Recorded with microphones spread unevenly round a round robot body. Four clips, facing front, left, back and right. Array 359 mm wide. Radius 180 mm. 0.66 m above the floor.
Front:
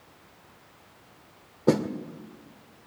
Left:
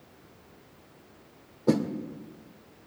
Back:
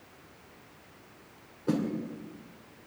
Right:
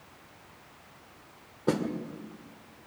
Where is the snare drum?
5° right, 2 m.